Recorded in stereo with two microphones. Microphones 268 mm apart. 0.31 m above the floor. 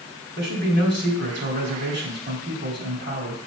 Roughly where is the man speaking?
Right.